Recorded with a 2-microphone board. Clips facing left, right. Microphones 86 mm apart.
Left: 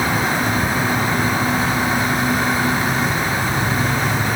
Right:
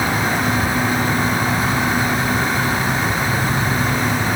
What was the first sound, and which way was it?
Only background noise.